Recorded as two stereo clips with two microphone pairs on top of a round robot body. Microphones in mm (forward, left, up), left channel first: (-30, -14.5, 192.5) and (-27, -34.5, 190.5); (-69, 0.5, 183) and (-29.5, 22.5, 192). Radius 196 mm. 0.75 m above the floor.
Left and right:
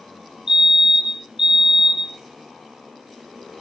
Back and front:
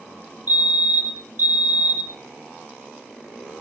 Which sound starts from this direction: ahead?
A fire alarm, at 0.5 s.